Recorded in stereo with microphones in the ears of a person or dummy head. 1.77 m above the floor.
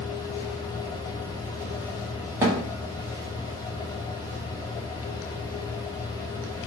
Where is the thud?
20° right (ahead or behind), 1.2 m.